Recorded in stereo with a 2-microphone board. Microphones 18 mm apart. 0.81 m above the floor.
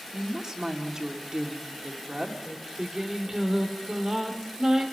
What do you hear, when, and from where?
0.1 s a woman speaking: 45° right (ahead or behind), 2.5 m
2.5 s singing: 35° right (ahead or behind), 2.5 m